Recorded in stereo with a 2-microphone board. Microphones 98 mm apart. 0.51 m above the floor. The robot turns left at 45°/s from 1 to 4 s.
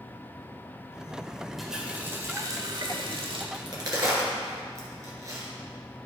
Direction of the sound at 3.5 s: 55° right (ahead or behind).